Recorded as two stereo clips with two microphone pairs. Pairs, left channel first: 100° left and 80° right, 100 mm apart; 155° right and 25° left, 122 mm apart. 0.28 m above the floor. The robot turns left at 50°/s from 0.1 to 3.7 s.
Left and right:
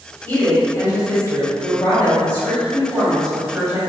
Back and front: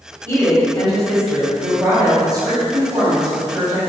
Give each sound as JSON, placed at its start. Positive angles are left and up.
{"t": 0.3, "sound": "a woman speaking", "azimuth_deg": 155, "distance_m": 1.5}